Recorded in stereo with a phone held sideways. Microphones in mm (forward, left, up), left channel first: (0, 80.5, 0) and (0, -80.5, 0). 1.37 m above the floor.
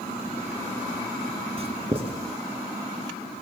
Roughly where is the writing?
Right.